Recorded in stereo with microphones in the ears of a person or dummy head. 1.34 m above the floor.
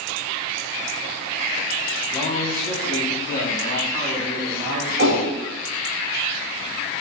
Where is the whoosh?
60° right (ahead or behind), 2.5 m.